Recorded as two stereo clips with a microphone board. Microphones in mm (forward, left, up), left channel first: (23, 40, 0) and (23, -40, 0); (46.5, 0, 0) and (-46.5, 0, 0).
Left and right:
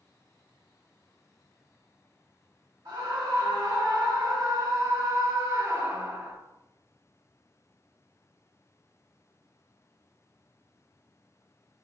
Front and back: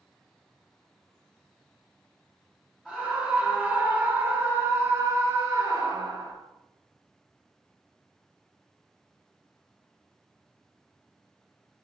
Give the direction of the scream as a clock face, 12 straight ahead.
3 o'clock.